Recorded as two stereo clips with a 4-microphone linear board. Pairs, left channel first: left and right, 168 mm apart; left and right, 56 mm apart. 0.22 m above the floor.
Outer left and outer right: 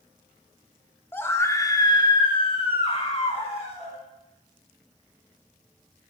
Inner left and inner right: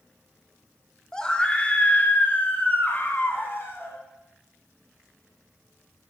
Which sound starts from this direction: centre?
A scream, at 1.1 s.